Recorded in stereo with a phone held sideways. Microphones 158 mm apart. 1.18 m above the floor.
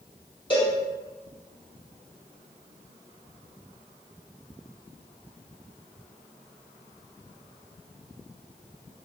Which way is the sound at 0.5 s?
30° left (ahead or behind).